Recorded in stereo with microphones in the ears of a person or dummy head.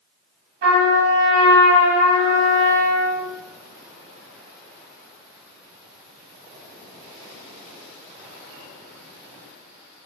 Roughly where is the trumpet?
Right.